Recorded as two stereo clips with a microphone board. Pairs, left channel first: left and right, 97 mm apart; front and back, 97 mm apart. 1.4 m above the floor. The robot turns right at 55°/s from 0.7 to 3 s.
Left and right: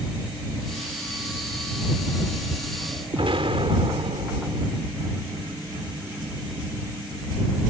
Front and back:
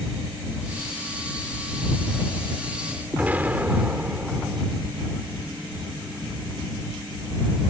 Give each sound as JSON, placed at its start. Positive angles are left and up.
{"t": 3.1, "sound": "an explosion", "azimuth_deg": -105}